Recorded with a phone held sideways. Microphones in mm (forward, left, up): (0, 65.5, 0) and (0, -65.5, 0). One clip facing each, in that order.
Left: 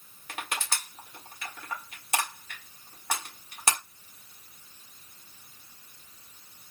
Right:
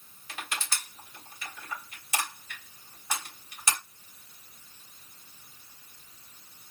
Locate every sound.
0.3 s crushing: 60° left (ahead or behind), 1.8 m